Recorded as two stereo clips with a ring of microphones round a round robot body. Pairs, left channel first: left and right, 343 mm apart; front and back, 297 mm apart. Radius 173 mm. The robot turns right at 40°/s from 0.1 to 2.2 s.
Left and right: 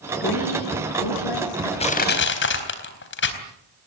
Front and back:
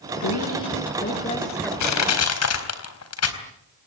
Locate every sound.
0.2 s a woman speaking: 25° left, 7.5 m; by 1.7 s 85° left, 7.5 m
1.8 s crushing: 15° left, 4 m; by 3.4 s 30° left, 4 m